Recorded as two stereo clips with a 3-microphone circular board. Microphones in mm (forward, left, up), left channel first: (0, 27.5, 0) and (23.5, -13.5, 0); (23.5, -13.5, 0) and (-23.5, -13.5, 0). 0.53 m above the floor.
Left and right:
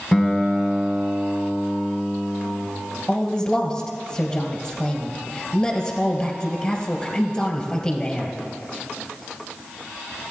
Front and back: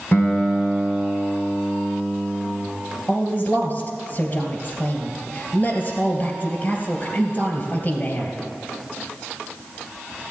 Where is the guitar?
30° left, 2 m.